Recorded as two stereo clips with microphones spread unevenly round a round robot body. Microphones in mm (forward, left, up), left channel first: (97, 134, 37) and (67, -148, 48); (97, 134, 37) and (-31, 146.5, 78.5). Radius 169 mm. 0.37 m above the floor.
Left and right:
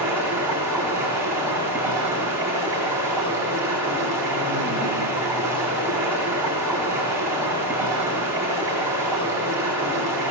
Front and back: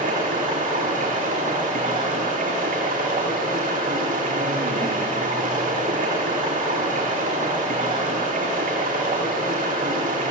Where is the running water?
Straight behind, 10 m.